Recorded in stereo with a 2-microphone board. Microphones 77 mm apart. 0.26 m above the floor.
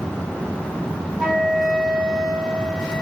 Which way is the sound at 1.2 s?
10° right (ahead or behind).